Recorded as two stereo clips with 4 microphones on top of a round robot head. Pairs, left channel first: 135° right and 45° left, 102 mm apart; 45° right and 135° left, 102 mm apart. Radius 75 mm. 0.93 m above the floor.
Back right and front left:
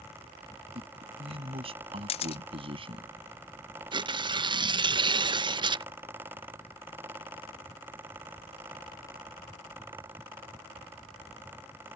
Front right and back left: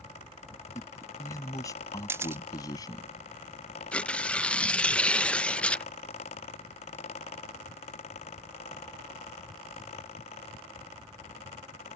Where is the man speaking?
15° left; by 3.1 s 10° left.